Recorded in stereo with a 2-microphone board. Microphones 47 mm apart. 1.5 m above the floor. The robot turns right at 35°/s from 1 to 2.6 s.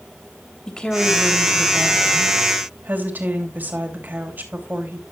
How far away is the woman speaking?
About 3 m.